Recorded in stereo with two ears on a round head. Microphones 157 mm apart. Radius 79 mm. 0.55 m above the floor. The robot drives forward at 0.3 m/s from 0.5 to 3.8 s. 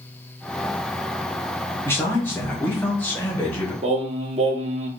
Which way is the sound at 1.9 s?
15° left (ahead or behind).